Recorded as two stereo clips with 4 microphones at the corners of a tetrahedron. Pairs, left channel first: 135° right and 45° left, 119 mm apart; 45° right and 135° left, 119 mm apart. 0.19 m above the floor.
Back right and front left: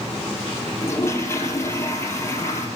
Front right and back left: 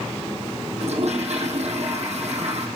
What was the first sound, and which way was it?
A toilet flushing, 155° left.